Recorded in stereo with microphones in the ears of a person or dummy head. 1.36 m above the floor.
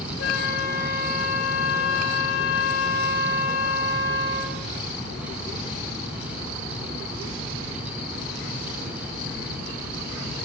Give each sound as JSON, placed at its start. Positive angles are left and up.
{"t": 0.2, "sound": "a flute", "side_deg": 65, "distance_m": 1.8}